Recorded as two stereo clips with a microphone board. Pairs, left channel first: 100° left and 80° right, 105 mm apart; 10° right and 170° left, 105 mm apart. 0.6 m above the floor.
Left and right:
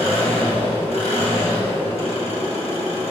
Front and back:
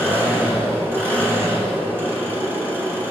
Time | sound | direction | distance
0.0 | an engine running | 100° left | 2 m